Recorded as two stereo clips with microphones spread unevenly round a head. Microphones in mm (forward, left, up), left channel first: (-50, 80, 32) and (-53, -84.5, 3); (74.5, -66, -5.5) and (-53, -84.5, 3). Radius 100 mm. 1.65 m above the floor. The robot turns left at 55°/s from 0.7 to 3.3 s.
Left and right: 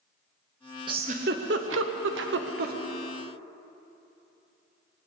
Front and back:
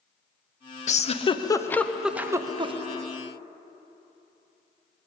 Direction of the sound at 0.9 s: 20° right.